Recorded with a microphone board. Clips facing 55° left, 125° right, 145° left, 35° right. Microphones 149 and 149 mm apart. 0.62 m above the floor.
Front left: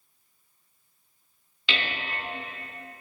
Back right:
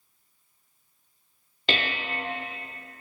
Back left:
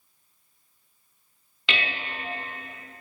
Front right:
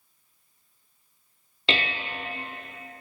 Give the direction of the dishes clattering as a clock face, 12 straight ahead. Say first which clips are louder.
Back right 3 dB, front right 3 dB; 3 o'clock.